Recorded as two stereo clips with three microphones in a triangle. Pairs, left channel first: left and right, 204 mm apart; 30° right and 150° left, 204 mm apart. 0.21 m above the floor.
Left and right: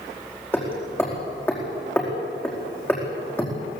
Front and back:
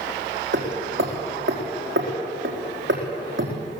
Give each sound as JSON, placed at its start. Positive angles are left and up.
{"t": 0.5, "sound": "hammering", "azimuth_deg": 170, "distance_m": 4.5}